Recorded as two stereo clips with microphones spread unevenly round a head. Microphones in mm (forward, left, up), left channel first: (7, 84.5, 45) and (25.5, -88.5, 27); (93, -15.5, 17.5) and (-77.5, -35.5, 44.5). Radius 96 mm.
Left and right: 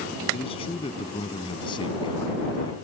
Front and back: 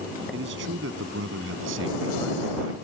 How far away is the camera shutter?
No camera shutter in this recording.